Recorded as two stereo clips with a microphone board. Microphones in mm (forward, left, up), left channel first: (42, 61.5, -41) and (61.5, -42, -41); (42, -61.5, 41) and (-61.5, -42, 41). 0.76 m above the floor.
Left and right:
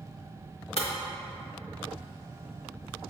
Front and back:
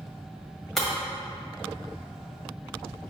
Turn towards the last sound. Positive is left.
turn(degrees=75)